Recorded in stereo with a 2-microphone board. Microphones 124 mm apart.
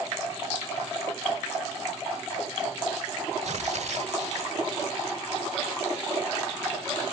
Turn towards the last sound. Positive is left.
turn(degrees=-70)  # may be behind; listen again after turning